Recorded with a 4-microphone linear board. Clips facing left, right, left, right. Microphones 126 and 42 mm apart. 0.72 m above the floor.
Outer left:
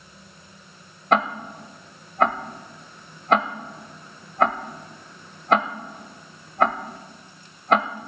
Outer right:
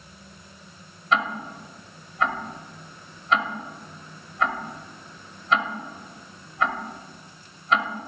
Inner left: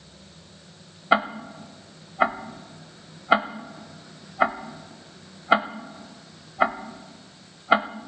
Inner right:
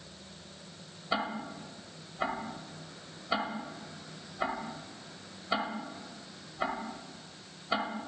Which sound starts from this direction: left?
Ticking, at 1.1 s.